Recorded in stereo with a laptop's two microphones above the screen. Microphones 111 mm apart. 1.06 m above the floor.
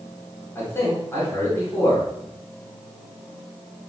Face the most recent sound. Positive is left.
turn(degrees=20)  # may be behind; listen again after turning